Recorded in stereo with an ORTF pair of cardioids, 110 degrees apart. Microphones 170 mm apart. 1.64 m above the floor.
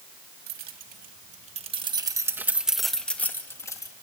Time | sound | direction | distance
0.5 | keys jangling | 70° right | 2.0 m